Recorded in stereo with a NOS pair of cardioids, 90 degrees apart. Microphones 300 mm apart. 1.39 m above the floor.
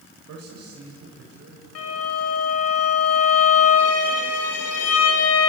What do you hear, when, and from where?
0.3 s a man speaking: 65° right, 5.5 m; by 1.6 s 50° right, 6 m
1.8 s a violin: 60° left, 4.5 m